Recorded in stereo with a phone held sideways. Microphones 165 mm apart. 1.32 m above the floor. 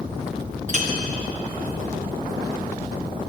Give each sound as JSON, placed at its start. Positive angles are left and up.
{"t": 0.7, "sound": "a clink", "side_deg": -45, "distance_m": 1.1}